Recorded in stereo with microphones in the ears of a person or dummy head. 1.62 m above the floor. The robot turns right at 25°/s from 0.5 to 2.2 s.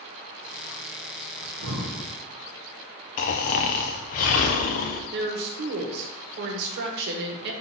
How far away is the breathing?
About 1.1 m.